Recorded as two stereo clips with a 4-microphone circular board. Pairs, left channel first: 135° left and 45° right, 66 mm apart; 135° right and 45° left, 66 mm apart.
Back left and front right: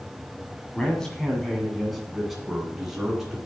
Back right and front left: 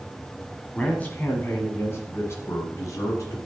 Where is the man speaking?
165° right, 1.6 m; by 3.4 s 125° right, 2.5 m.